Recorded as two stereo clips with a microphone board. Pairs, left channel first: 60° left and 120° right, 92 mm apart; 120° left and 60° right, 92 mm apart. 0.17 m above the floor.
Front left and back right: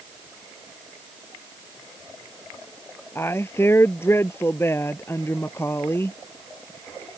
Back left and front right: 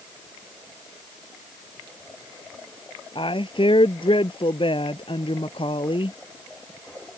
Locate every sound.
3.1 s a woman speaking: 120° left